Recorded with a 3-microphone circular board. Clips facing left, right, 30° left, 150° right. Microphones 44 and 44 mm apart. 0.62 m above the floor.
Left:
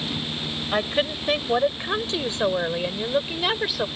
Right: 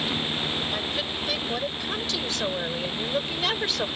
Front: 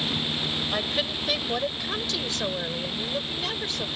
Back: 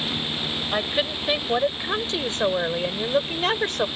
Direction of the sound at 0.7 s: 140° left.